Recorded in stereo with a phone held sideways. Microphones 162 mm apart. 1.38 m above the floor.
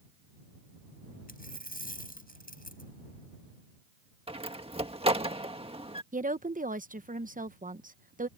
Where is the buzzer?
I don't hear a buzzer.